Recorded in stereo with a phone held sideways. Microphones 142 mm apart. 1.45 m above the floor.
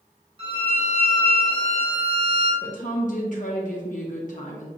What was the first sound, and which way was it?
A violin, 40° right (ahead or behind).